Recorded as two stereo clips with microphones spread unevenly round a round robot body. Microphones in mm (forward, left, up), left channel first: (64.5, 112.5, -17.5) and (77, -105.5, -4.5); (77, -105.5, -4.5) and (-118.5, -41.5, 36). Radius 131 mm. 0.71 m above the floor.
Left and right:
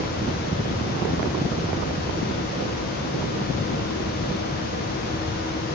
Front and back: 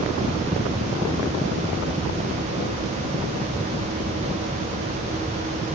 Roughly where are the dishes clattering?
No dishes clattering in this recording.